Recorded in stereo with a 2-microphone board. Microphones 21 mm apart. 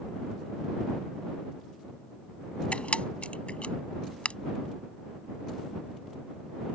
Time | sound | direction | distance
2.7 | a camera shutter | 65° left (ahead or behind) | ?